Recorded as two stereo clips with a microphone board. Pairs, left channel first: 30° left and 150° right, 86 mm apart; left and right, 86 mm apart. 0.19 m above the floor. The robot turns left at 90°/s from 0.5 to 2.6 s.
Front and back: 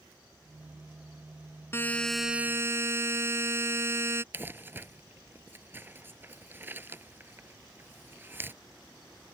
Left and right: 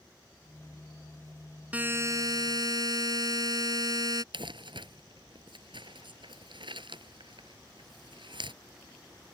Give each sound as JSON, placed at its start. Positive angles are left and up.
{"t": 1.7, "sound": "a buzzer", "azimuth_deg": -20}
{"t": 4.3, "sound": "crumpling", "azimuth_deg": -85}